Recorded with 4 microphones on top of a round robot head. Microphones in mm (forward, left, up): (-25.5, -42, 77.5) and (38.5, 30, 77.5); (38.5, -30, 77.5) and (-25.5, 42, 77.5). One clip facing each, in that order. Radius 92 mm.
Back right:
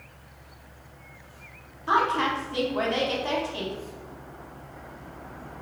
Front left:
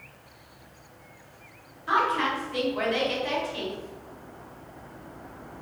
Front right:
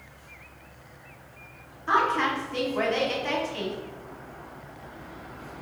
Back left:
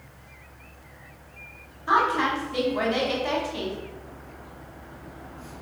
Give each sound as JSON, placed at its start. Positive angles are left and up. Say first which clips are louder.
{"t": 1.9, "sound": "a woman speaking", "louder": "back right 1 dB, back left 2 dB", "azimuth_deg": -160, "distance_m": 1.1}